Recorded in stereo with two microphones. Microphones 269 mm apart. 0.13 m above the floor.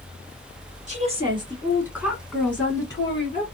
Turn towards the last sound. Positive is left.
turn(degrees=25)  # may be behind; listen again after turning